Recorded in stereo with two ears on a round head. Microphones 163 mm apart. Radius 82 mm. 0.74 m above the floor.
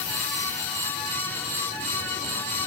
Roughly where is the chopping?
No chopping in this recording.